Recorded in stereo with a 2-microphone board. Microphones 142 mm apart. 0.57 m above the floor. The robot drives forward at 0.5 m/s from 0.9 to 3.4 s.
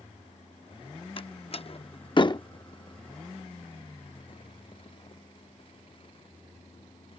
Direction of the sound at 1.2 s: 40° left (ahead or behind).